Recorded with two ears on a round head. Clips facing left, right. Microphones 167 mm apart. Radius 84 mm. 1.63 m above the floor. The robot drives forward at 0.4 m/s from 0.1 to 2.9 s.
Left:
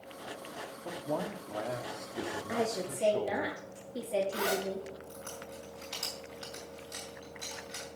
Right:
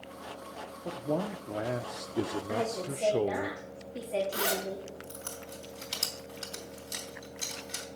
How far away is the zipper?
About 4 m.